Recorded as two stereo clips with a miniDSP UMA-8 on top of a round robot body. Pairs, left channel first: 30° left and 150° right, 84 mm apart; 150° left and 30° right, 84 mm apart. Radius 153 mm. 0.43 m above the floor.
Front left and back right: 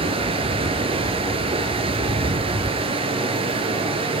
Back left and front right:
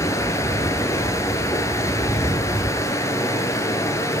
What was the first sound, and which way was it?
Running water, 150° right.